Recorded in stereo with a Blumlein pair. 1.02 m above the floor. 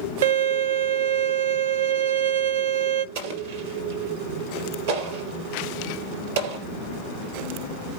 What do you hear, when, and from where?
0.2 s a violin: 60° right, 0.7 m
3.1 s an explosion: 55° right, 3.5 m